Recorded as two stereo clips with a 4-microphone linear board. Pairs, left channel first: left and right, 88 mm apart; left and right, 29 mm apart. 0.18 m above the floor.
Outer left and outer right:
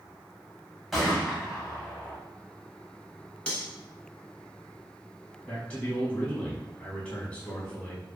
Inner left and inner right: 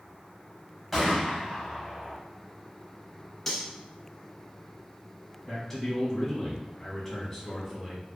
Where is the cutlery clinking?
15° left (ahead or behind), 1.3 m.